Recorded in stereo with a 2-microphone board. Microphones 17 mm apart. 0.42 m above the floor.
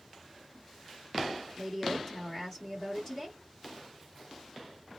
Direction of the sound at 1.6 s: 15° left (ahead or behind).